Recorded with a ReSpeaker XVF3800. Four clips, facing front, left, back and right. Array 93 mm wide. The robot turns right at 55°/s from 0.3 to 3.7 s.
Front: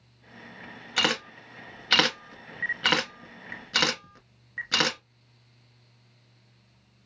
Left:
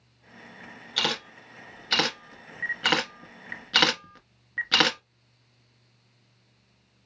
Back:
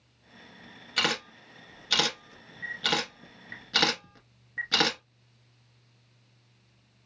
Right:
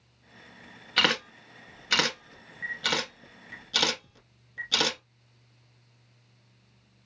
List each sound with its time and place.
1.0 s a camera shutter: 65° right, 0.7 m; by 5.0 s 85° left, 0.7 m